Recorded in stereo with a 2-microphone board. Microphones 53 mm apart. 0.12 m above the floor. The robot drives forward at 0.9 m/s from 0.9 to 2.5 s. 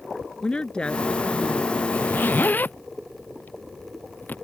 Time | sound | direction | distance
0.4 | a woman speaking | 20° left (ahead or behind) | ?
1.9 | a zipper | 40° left (ahead or behind) | ?